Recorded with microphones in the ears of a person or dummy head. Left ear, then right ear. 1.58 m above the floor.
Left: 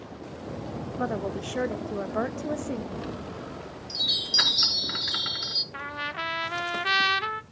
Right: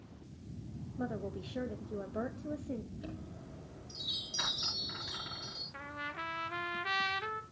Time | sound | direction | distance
1.0 | a woman speaking | 45° left (ahead or behind) | 0.7 m
2.9 | a chime | 55° left (ahead or behind) | 4 m
5.7 | a trumpet | 30° left (ahead or behind) | 0.7 m